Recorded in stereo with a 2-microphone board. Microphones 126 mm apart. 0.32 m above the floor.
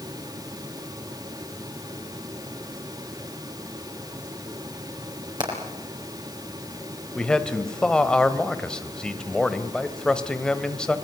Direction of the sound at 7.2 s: 5° left (ahead or behind).